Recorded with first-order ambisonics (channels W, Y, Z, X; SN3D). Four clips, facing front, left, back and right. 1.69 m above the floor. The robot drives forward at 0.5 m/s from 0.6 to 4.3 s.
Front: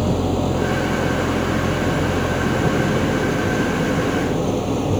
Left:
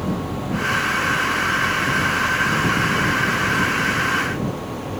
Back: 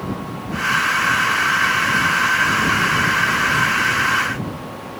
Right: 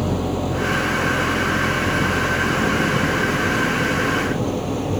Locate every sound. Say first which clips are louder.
0.0 s an engine running: right 3 dB, front 7 dB; 20° right